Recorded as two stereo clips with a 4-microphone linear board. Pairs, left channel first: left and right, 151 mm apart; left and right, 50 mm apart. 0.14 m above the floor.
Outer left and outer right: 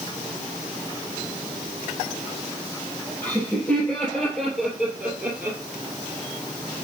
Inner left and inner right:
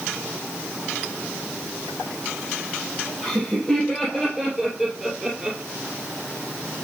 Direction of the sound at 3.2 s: 15° left (ahead or behind).